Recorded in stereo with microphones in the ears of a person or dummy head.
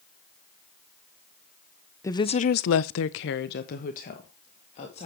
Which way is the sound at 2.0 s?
15° left (ahead or behind).